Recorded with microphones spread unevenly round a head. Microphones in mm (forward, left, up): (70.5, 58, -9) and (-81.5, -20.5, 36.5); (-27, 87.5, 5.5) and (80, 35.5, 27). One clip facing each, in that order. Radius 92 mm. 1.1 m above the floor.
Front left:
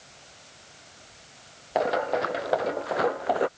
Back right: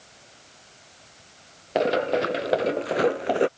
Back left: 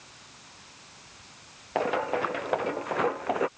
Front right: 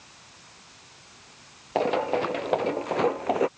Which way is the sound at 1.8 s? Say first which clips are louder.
Back right 3 dB, front right 3 dB; 100° right.